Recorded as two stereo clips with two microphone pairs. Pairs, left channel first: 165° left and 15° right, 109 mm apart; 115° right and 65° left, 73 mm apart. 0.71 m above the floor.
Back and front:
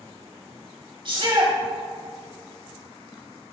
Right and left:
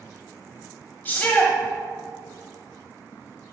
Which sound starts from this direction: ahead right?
A shout, at 1.1 s.